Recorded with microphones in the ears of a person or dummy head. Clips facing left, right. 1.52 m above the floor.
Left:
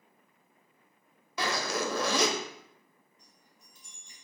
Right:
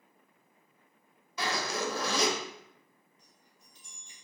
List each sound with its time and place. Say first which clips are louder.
1.4 s a zipper: left 2 dB; 65° left (ahead or behind), 0.6 m
3.2 s a chime: left 1 dB; 40° left (ahead or behind), 1.0 m